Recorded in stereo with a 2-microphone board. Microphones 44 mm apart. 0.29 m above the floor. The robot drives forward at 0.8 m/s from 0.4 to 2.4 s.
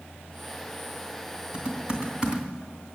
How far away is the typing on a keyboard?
About 2.5 m.